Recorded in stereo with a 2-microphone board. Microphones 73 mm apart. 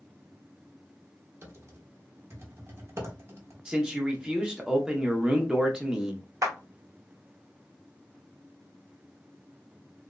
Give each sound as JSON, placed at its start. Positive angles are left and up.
{"t": 1.4, "sound": "typing on a keyboard", "side_deg": -35, "distance_m": 0.8}
{"t": 3.6, "sound": "a man speaking", "side_deg": -10, "distance_m": 0.7}
{"t": 6.4, "sound": "a clap", "side_deg": -50, "distance_m": 0.8}